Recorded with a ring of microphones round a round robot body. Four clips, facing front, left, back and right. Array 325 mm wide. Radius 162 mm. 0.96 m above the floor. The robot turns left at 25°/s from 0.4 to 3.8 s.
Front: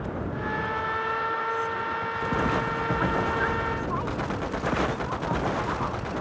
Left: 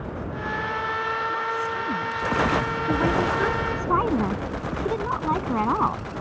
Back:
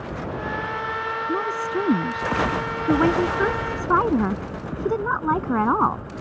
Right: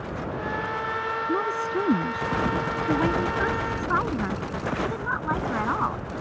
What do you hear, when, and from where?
1.3 s a woman speaking: 135° right; by 6.0 s 165° left